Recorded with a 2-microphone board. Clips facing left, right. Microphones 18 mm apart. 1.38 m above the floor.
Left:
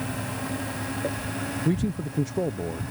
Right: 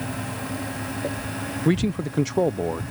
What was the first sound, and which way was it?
A man speaking, 50° right (ahead or behind).